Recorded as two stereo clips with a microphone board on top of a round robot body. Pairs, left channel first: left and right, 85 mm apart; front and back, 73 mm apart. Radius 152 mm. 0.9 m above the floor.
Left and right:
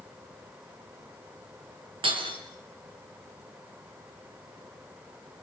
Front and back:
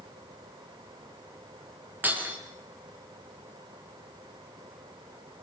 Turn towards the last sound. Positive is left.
turn(degrees=-115)